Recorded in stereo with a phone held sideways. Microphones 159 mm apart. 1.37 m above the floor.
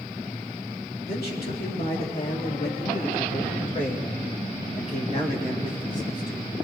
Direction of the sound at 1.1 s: 80° left.